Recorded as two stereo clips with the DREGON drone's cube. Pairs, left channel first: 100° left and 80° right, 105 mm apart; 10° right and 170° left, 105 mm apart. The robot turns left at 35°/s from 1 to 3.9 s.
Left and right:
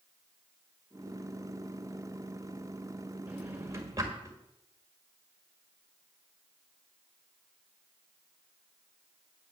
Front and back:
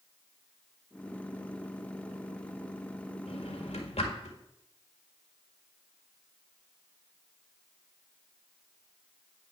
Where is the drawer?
Straight ahead, 1.7 m; by 4.4 s 20° right, 1.7 m.